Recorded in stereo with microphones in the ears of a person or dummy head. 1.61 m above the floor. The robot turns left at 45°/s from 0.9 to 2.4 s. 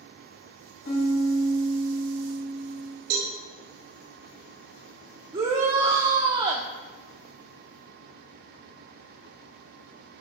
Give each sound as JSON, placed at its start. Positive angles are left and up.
{"t": 0.8, "sound": "a piano", "azimuth_deg": 70, "distance_m": 3.5}
{"t": 3.1, "sound": "a cowbell", "side_deg": -60, "distance_m": 2.0}
{"t": 5.3, "sound": "a shout", "side_deg": -30, "distance_m": 0.7}